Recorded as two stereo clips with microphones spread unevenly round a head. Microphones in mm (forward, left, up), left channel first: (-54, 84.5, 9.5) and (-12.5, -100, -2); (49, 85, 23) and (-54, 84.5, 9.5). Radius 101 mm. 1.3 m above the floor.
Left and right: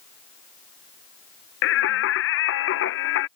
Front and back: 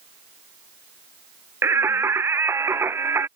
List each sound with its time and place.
1.6 s singing: 110° left